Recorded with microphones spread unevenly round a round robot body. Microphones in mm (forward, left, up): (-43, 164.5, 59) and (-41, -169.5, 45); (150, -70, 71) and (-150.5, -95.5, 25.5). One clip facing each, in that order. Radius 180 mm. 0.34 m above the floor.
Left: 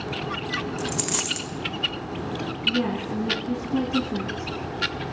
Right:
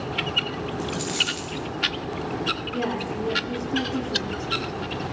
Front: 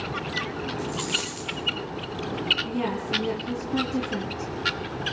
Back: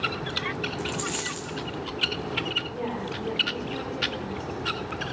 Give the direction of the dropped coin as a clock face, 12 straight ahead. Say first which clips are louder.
Even, front 1 dB; 8 o'clock.